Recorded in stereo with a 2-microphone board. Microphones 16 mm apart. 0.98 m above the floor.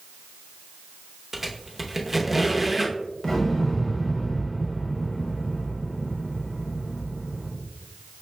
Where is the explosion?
15° left (ahead or behind), 1.2 m.